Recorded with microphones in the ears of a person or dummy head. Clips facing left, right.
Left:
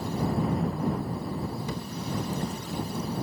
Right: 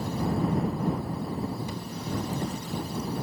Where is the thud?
65° left (ahead or behind).